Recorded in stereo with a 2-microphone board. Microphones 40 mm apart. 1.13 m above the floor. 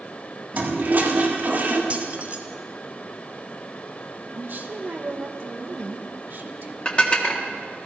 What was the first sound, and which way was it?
A toilet flushing, 50° right (ahead or behind).